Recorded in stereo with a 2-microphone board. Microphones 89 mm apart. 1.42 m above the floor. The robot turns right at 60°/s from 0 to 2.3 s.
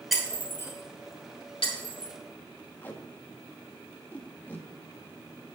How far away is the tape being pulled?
About 1.3 m.